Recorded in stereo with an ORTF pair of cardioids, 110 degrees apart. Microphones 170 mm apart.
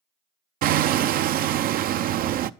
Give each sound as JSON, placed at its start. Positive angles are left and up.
{"t": 0.6, "sound": "hammering", "azimuth_deg": -60, "distance_m": 0.6}